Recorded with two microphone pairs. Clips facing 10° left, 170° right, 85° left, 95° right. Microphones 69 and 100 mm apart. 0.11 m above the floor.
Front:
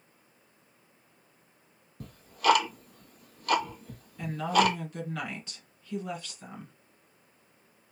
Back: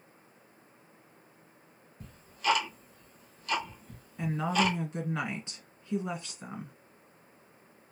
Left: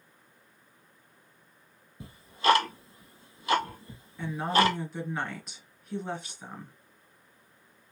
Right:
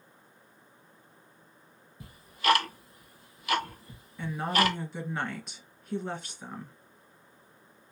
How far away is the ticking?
About 0.6 m.